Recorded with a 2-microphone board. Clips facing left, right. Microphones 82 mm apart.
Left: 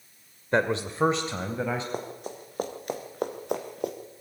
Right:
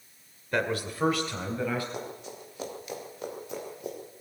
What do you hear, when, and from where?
0.5 s a man speaking: 30° left (ahead or behind), 1.2 m; by 1.8 s 25° left (ahead or behind), 2.5 m
1.9 s running footsteps: 40° left (ahead or behind), 4 m; by 4.0 s 70° left (ahead or behind), 3 m